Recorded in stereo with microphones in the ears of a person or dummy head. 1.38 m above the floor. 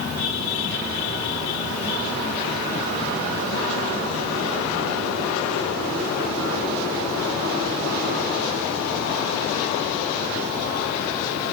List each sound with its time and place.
Only background noise.